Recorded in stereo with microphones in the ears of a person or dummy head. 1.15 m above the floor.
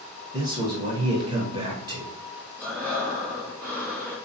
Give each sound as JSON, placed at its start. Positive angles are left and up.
{"t": 0.3, "sound": "a man speaking", "side_deg": -35, "distance_m": 0.7}
{"t": 2.6, "sound": "breathing", "side_deg": -10, "distance_m": 1.8}